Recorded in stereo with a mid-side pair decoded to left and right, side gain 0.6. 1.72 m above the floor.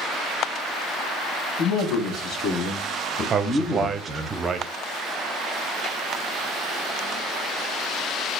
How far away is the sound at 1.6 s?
About 1.8 m.